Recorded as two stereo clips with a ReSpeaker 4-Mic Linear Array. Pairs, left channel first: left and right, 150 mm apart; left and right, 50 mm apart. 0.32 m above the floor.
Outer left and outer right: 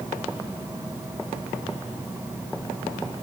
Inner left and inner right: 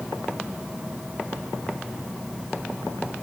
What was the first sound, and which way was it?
Only background noise.